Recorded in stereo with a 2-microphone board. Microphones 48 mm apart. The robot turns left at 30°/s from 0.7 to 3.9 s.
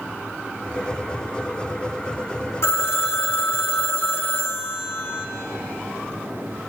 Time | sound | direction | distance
2.6 | a phone ringing | 105° left | 1.3 m